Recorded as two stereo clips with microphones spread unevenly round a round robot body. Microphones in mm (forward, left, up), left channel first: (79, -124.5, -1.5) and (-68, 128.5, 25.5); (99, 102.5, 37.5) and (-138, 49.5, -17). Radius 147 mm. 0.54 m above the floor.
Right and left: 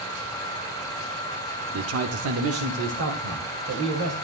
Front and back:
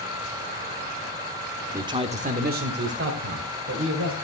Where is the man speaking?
135° left, 1.1 m; by 4.2 s 170° left, 3 m.